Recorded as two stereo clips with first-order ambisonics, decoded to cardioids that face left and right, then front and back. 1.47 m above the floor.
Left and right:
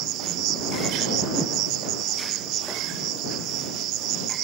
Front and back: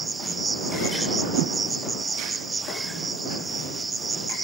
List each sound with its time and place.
0.0 s an insect: 110° right
1.3 s a whoosh: 170° right